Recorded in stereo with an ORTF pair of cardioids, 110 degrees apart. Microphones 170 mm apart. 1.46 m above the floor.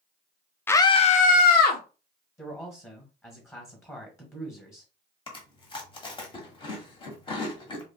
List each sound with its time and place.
0.7 s a scream: 10° left, 0.6 m; by 1.8 s 70° left, 1.1 m
2.4 s a man speaking: 15° left, 1.6 m
5.3 s chewing: 30° left, 1.3 m